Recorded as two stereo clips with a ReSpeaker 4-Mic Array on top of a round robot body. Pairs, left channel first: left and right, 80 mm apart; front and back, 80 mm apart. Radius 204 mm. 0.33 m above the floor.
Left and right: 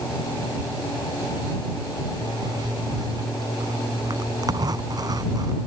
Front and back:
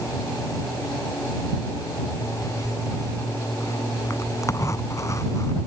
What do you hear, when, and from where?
2.2 s a zipper: 50° right